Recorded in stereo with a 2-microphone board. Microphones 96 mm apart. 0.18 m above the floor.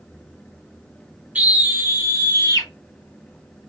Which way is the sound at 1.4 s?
15° right (ahead or behind).